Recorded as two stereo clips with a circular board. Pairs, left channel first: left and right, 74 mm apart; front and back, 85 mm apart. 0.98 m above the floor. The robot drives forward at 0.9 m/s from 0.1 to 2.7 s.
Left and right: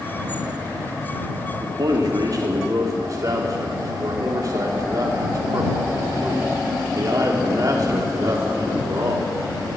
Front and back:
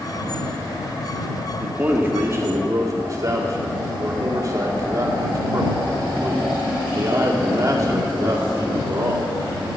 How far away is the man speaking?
About 1.8 m.